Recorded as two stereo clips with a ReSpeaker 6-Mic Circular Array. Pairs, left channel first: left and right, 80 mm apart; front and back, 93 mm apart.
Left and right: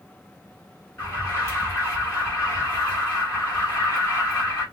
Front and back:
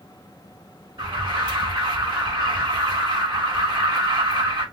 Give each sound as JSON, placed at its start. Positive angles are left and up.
{"t": 1.0, "sound": "an alarm", "azimuth_deg": 145, "distance_m": 2.5}